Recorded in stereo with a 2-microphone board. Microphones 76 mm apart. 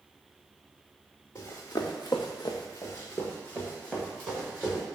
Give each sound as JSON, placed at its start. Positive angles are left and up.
{"t": 1.4, "sound": "running footsteps", "side_deg": 40, "distance_m": 1.2}